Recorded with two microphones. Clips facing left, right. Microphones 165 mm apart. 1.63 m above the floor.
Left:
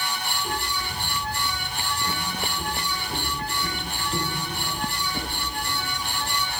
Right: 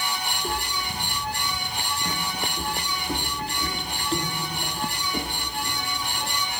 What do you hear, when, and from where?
0.3 s footsteps: 45° right (ahead or behind), 3 m; by 6.3 s 75° right (ahead or behind), 7 m